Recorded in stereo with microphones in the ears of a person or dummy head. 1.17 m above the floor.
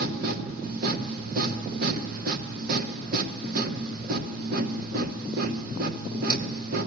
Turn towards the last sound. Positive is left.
turn(degrees=-55)  # may be behind; listen again after turning